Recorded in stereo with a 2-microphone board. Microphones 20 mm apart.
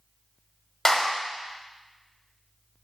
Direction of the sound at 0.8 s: 20° left (ahead or behind).